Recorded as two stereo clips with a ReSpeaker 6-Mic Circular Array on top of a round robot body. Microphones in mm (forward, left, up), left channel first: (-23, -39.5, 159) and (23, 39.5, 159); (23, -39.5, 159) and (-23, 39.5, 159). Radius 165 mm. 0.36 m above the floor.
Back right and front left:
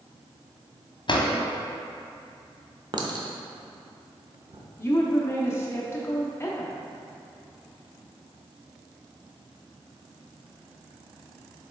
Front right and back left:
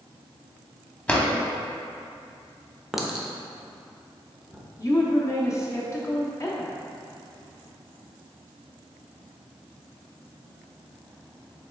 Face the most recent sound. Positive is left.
turn(degrees=-80)